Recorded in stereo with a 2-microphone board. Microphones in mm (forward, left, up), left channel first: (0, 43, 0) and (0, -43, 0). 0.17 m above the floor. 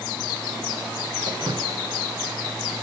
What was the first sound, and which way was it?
Dripping, 65° right (ahead or behind).